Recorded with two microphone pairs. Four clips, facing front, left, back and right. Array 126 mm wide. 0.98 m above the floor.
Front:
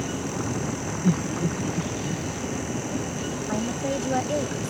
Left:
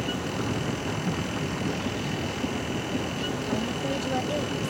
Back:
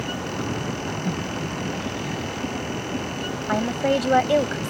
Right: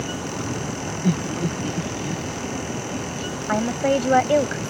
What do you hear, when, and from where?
1.0 s laughter: 80° right
3.5 s a woman speaking: 125° right